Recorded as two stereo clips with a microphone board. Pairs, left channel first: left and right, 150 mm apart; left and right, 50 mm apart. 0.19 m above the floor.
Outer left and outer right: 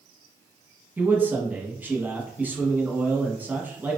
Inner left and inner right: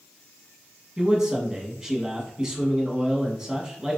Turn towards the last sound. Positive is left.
turn(degrees=-10)  # may be behind; listen again after turning